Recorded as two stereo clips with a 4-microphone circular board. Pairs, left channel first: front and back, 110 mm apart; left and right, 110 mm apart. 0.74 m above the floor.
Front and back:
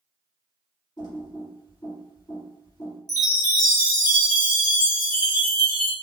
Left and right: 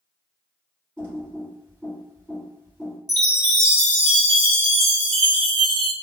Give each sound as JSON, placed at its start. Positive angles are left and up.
{"t": 1.0, "sound": "typing on a keyboard", "azimuth_deg": -30, "distance_m": 1.7}
{"t": 3.1, "sound": "a chime", "azimuth_deg": -50, "distance_m": 1.0}